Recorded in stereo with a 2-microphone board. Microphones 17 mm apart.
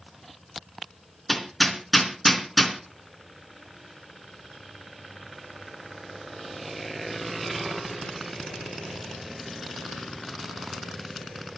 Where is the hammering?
Centre (ahead or behind), 3 m.